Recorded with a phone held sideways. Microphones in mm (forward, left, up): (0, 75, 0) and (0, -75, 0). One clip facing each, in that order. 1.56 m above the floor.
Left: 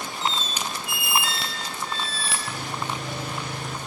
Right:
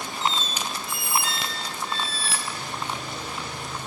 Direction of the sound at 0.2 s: 40° right (ahead or behind).